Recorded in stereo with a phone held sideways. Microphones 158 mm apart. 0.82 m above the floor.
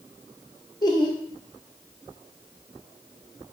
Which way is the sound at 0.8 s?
25° left (ahead or behind).